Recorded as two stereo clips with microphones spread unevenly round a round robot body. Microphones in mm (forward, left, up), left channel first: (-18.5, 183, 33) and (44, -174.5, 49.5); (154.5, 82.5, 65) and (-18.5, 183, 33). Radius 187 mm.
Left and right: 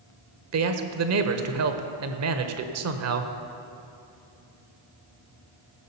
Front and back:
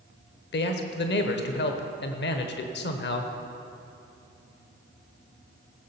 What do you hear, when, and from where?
0.5 s a man speaking: 45° right, 1.2 m